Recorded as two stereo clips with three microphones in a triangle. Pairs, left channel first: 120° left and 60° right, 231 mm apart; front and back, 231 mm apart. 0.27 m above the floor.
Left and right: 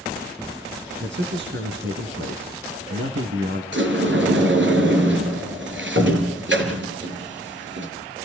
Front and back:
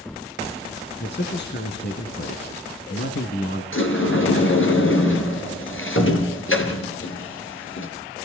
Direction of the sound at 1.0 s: 30° right.